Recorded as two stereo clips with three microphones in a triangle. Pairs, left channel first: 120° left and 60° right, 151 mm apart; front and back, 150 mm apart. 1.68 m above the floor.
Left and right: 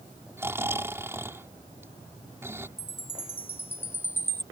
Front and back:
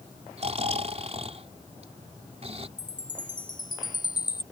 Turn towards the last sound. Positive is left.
turn(degrees=50)